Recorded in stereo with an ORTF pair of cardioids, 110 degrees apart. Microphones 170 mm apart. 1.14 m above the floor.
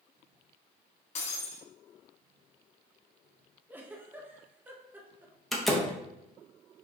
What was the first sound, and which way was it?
Breaking glass, 45° left.